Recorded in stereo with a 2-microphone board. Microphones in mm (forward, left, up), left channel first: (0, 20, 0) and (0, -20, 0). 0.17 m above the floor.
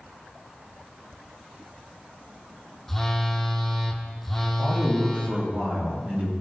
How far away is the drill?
I don't hear a drill.